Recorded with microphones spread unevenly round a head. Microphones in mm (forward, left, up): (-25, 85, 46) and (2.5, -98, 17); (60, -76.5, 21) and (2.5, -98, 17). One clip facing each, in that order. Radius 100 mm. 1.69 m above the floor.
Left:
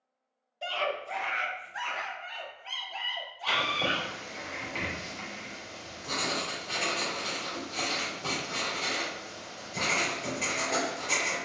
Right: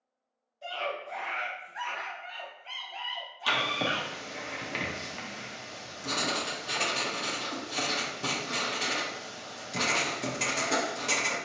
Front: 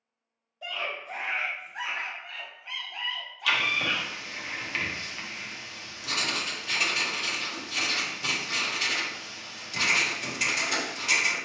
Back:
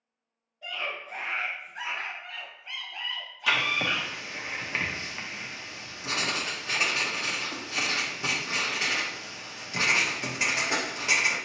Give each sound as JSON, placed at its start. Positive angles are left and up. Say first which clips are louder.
{"t": 0.6, "sound": "a scream", "louder": "left 3 dB, front 1 dB", "azimuth_deg": 75, "distance_m": 0.7}
{"t": 3.5, "sound": "writing", "louder": "right 1 dB, even", "azimuth_deg": -95, "distance_m": 0.9}